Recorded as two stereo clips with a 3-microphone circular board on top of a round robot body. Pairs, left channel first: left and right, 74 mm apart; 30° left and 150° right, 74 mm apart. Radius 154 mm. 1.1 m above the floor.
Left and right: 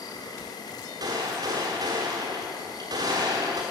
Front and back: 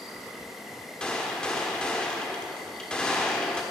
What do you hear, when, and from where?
0.0 s an insect: 120° left, 1.5 m
1.0 s a gunshot: 50° right, 1.1 m